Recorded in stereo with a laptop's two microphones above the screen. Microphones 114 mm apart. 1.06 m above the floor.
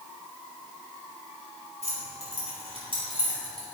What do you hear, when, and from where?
1.8 s keys jangling: 65° right (ahead or behind), 4 m; by 3.6 s 35° right (ahead or behind), 4 m